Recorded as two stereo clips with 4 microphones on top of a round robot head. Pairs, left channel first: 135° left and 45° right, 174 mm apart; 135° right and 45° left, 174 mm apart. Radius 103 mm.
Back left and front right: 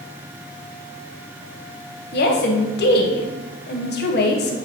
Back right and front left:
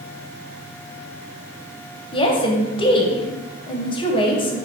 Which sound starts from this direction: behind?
A woman speaking, at 2.1 s.